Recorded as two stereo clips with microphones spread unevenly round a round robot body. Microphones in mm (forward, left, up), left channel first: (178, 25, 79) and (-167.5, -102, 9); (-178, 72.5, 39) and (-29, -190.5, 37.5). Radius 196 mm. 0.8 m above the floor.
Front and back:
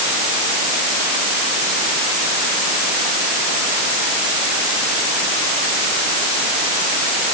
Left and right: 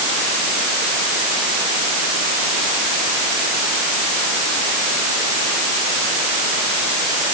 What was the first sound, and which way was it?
Only background noise.